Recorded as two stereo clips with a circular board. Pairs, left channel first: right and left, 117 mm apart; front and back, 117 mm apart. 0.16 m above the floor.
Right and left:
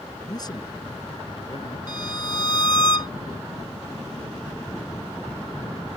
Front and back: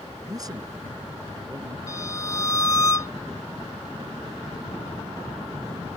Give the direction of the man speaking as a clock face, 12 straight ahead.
4 o'clock.